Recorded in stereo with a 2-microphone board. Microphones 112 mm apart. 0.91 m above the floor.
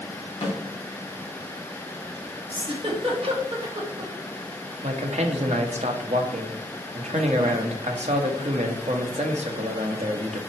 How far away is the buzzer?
I don't hear a buzzer.